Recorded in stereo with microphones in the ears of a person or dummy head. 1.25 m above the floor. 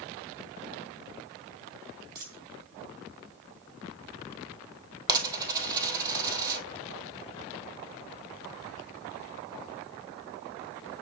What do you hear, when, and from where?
2.1 s a dropped coin: 50° right (ahead or behind), 4 m
5.1 s a dropped coin: 20° right (ahead or behind), 1.9 m